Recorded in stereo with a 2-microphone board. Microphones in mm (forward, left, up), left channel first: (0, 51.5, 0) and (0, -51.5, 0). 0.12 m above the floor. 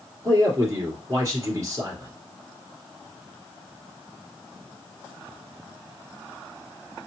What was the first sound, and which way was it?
A man speaking, 30° right (ahead or behind).